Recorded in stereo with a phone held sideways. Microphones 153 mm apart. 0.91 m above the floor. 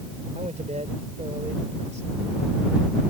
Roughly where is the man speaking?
Right.